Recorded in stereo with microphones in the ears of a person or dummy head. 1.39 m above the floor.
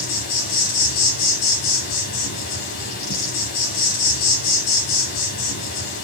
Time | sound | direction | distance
0.0 | an insect | 50° left (ahead or behind) | 1.4 m